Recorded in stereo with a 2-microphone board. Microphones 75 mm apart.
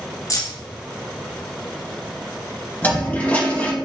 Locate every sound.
0.3 s keys jangling: 45° left (ahead or behind), 1.4 m
2.8 s a toilet flushing: 20° left (ahead or behind), 2.5 m